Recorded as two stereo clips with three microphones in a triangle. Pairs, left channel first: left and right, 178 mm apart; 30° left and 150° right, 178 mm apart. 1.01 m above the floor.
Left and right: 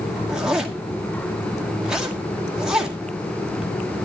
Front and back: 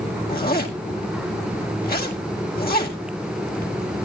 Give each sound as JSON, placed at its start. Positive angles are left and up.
{"t": 0.3, "sound": "a zipper", "azimuth_deg": -5, "distance_m": 2.0}